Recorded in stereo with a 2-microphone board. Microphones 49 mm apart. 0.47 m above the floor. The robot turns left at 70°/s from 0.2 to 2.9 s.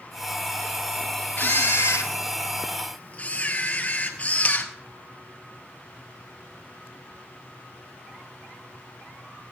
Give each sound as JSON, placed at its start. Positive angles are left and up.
{"t": 1.4, "sound": "a camera shutter", "azimuth_deg": 135, "distance_m": 1.7}